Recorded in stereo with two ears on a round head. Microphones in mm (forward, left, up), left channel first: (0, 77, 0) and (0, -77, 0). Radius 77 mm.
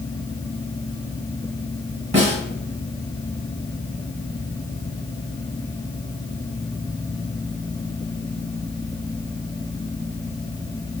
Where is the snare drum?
35° right (ahead or behind), 1.7 m.